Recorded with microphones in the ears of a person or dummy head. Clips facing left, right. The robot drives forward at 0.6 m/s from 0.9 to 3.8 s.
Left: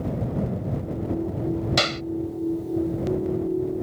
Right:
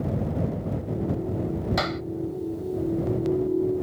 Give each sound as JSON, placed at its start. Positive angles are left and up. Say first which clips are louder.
{"t": 1.8, "sound": "a clap", "louder": "left 1 dB", "side_deg": 40}